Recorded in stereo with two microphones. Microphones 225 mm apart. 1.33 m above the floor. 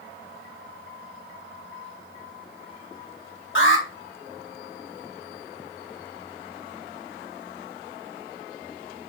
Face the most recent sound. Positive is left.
turn(degrees=65)  # may be behind; listen again after turning